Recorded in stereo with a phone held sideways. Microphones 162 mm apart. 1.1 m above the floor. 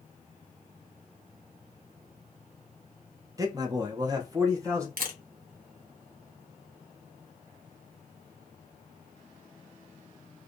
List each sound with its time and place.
3.4 s a man speaking: 20° right (ahead or behind), 0.7 m
5.0 s a camera shutter: 70° right (ahead or behind), 0.7 m